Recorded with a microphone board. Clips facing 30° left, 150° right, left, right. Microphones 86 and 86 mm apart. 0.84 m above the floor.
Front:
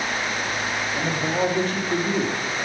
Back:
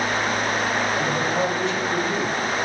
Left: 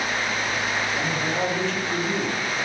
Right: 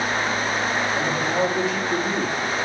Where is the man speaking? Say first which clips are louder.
Back 1 dB, right 3 dB; 15° right, 2 m.